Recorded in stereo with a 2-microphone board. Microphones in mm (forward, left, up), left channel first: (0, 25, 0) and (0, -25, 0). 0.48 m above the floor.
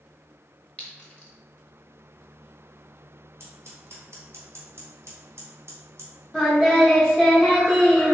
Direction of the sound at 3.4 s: 60° right (ahead or behind).